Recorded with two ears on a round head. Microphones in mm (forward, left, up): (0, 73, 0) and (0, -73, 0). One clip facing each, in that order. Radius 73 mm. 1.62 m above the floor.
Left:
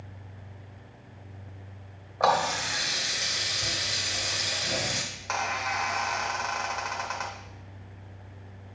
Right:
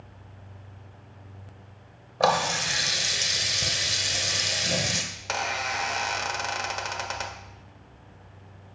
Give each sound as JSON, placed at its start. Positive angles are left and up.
{"t": 2.2, "sound": "a running tap", "side_deg": -35, "distance_m": 0.7}
{"t": 5.1, "sound": "a squeak", "side_deg": -35, "distance_m": 0.7}